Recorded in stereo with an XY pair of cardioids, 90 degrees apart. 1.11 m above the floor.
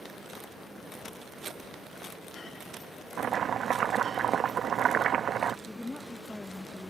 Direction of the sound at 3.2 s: 65° right.